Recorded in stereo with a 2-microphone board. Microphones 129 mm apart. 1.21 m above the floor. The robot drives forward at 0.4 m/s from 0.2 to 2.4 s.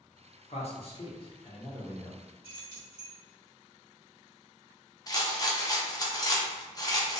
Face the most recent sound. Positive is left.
turn(degrees=30)  # may be behind; listen again after turning